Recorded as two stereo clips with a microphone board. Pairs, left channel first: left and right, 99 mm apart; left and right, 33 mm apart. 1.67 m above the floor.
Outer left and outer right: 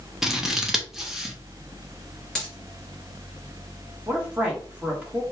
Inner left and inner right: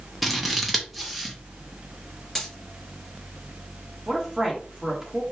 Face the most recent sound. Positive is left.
turn(degrees=-15)  # may be behind; listen again after turning